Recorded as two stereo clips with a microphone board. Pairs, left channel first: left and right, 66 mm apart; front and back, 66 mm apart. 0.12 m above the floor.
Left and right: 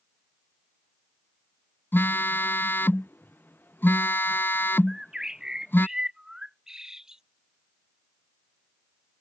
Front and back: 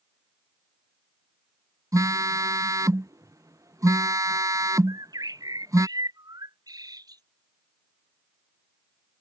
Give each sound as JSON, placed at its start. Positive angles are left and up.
{"t": 1.9, "sound": "a phone buzzing", "azimuth_deg": 145}
{"t": 4.9, "sound": "a bird", "azimuth_deg": -170}